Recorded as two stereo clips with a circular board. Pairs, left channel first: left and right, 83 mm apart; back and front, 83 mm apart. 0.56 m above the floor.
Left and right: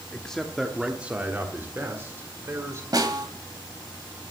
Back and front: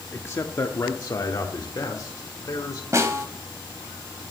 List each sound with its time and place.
0.1 s a man speaking: 155° left, 0.8 m; by 2.8 s 140° right, 1.7 m
2.9 s a snare drum: 50° right, 1.7 m